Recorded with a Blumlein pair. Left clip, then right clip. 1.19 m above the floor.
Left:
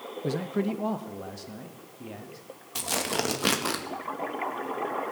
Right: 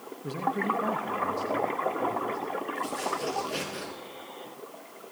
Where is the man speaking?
25° left, 0.7 m; by 2.4 s 10° left, 2 m.